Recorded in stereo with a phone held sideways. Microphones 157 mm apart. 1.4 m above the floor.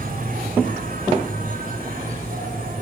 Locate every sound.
0.0 s an insect: 65° right (ahead or behind), 4 m